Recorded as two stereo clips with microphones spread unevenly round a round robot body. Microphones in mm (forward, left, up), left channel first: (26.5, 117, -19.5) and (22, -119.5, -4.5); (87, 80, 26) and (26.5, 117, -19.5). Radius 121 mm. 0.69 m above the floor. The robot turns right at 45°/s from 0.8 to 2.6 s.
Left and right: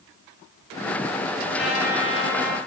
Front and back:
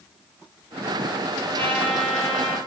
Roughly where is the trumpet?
Behind.